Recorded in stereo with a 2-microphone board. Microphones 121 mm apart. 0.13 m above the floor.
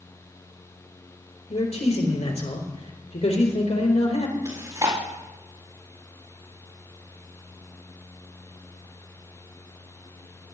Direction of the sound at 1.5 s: 70° left (ahead or behind).